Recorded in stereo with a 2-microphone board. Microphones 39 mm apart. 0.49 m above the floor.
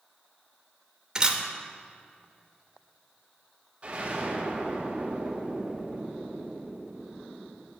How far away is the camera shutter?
About 0.8 m.